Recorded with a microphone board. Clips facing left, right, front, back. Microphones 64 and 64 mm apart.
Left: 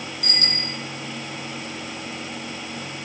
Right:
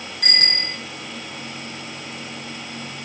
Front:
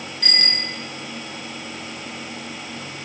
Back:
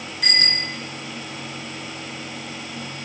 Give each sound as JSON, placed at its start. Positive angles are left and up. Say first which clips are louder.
{"t": 0.2, "sound": "a bicycle bell", "louder": "right 6 dB, back 2 dB", "azimuth_deg": -100, "distance_m": 7.5}